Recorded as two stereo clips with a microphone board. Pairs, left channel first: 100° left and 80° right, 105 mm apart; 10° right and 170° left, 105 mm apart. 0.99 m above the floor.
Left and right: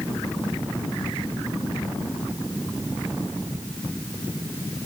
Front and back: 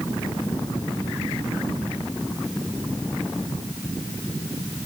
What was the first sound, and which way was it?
Only background noise.